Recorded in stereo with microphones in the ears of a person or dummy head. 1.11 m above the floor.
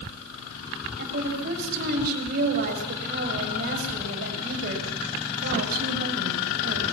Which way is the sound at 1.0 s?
50° right (ahead or behind).